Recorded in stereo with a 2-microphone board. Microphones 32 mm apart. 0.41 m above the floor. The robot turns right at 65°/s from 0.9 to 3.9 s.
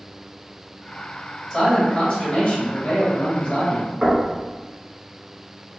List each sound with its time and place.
1.5 s a man speaking: 5° right, 1.6 m; by 3.9 s 150° left, 1.6 m
4.0 s knocking: 40° right (ahead or behind), 1.0 m